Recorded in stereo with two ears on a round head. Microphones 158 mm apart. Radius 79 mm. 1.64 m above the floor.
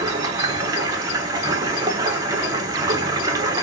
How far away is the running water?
About 0.8 m.